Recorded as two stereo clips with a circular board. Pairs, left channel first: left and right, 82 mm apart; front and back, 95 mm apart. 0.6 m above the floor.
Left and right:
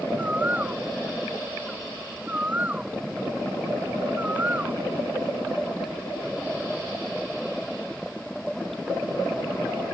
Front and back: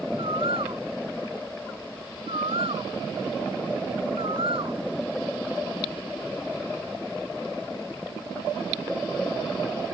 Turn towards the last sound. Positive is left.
turn(degrees=-160)